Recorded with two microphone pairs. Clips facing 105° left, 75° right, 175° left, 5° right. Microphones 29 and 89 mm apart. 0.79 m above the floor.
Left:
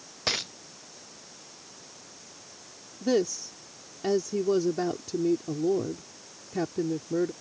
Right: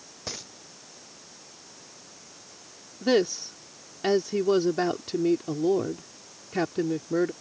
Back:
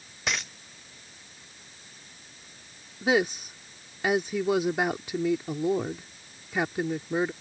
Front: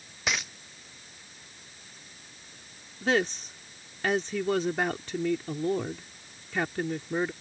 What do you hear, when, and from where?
0.3 s a dropped coin: 85° left
3.0 s a woman speaking: 110° right